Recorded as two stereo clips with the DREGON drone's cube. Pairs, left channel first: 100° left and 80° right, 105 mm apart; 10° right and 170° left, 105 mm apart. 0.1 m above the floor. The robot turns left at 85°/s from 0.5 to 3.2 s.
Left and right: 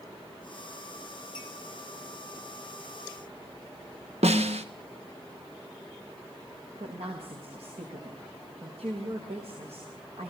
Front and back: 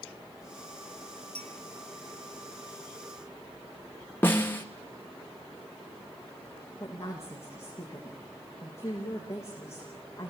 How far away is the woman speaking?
About 6.5 m.